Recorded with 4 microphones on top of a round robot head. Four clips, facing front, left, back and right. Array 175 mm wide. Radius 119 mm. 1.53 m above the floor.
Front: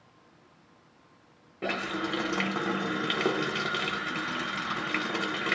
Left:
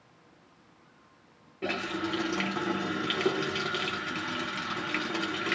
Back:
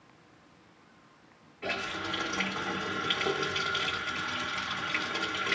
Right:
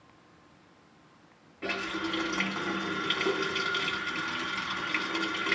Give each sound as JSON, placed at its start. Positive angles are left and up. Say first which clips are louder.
{"t": 1.6, "sound": "a running tap", "louder": "left 1 dB, front 4 dB", "azimuth_deg": 15, "distance_m": 1.0}